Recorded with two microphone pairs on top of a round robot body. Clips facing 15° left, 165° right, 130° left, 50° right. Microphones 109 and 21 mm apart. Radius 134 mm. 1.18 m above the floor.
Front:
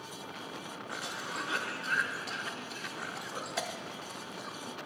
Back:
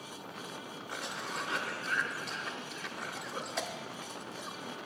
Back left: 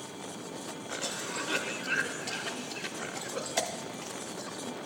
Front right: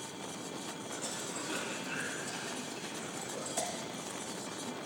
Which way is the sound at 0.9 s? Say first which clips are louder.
Back 1 dB, back left 7 dB; 110° left.